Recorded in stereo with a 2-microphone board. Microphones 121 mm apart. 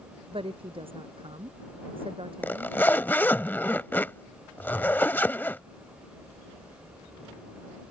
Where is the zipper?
15° left (ahead or behind).